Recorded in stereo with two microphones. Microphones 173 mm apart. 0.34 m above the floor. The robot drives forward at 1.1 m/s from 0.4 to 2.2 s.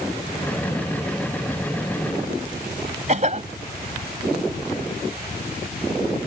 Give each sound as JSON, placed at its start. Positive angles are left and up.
{"t": 3.1, "sound": "a cough", "side_deg": -45}